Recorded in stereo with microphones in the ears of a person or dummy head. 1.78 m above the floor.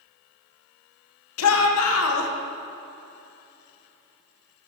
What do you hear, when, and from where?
1.4 s a shout: 80° left, 2 m